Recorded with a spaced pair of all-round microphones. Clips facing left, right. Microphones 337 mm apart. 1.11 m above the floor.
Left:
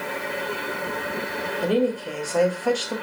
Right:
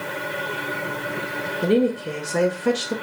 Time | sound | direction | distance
1.6 | a woman speaking | 30° right (ahead or behind) | 0.7 m